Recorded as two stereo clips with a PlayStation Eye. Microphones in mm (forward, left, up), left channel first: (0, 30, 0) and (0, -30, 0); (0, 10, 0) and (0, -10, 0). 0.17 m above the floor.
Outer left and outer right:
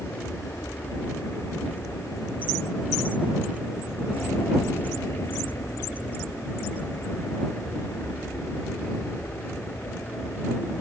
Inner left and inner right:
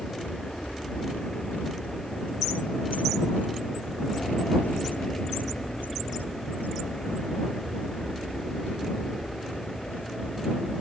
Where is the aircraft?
60° left (ahead or behind); by 10.8 s 40° left (ahead or behind).